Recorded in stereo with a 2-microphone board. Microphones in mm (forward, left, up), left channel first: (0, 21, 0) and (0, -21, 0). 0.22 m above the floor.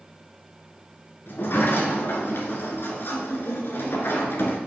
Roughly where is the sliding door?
Left.